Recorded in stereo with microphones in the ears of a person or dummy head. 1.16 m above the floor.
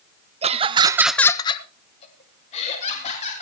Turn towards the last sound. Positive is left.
turn(degrees=35)  # may be behind; listen again after turning